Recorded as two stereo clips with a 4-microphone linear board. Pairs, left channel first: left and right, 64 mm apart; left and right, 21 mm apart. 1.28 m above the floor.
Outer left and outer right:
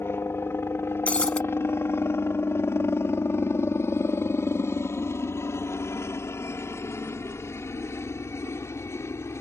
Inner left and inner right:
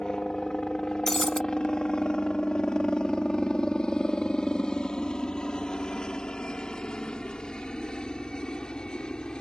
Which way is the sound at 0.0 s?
40° left (ahead or behind).